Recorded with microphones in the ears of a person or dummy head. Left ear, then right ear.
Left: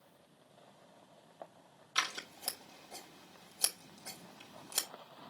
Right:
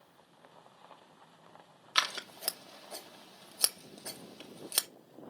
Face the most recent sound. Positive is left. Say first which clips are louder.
# right 5 dB
turn(degrees=-75)  # may be behind; listen again after turning